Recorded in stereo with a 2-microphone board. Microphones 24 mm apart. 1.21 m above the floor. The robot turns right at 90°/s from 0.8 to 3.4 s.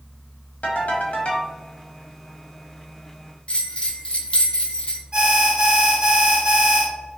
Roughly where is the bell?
Left.